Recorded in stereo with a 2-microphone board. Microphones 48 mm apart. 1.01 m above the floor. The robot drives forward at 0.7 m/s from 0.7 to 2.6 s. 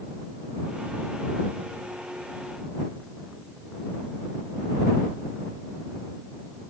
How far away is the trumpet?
I don't hear a trumpet.